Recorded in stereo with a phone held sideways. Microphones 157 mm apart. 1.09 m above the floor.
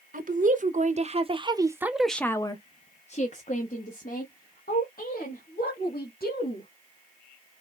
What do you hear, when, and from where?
0.1 s a woman speaking: 60° right (ahead or behind), 1.1 m; by 6.7 s 75° left (ahead or behind), 2.5 m